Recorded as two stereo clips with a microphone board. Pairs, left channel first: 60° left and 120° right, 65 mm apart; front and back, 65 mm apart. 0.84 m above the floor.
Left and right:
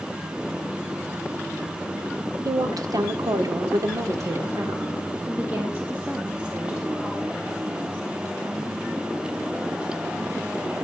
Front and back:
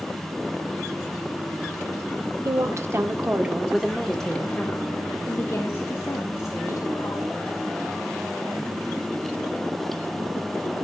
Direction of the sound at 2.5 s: 150° right.